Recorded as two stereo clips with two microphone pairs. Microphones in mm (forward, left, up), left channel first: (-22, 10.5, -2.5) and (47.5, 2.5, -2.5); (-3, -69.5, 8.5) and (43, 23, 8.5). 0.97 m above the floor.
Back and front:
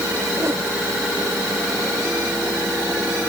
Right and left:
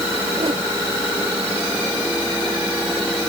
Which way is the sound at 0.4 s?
40° left.